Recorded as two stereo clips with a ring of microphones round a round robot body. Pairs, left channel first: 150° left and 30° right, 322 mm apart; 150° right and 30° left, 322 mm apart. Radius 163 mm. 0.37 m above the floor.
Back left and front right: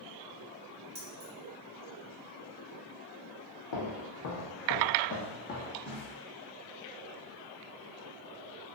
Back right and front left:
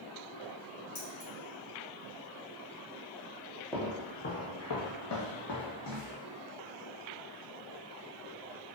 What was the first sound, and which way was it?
Keys jangling, 95° right.